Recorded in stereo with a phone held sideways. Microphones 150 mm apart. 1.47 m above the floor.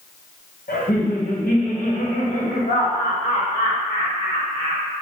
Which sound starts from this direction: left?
Laughter, at 0.7 s.